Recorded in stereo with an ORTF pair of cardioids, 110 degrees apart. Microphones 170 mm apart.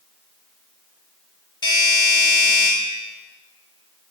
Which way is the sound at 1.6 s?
25° left.